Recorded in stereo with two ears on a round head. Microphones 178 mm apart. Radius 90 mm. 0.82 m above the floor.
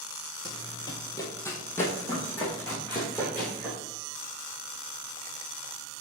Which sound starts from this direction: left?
Running footsteps, at 0.5 s.